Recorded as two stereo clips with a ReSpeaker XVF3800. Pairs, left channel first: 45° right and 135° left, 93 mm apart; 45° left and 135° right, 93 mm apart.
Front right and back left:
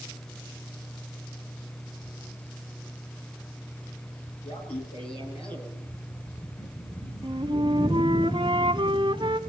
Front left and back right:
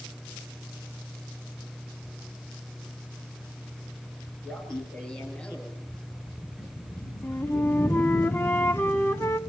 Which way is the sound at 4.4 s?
40° right.